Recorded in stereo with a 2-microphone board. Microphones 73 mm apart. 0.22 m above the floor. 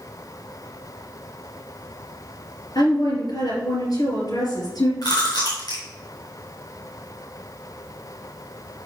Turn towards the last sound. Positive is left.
turn(degrees=60)  # may be behind; listen again after turning